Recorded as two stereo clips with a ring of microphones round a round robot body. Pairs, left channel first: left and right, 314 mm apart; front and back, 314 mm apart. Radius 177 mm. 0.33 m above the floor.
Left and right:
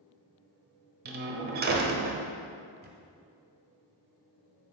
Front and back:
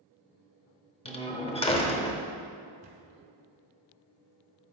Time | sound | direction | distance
1.1 | a door slam | 60° right | 0.8 m
2.8 | a camera shutter | 130° right | 1.3 m